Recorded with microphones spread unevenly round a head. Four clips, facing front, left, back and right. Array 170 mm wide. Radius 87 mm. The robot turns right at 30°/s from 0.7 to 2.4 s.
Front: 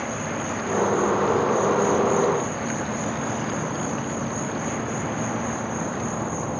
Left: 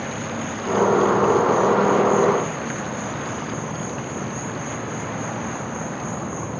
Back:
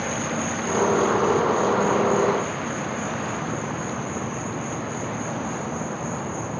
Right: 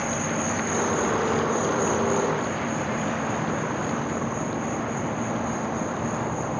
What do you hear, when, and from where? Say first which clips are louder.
0.0 s an insect: right 1 dB, back 2 dB; 110° right, 1.0 m; by 6.6 s 60° right, 1.0 m